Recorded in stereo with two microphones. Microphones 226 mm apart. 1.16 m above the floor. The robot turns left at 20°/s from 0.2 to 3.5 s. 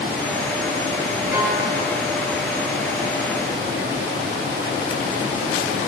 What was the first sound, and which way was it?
A violin, 10° right (ahead or behind).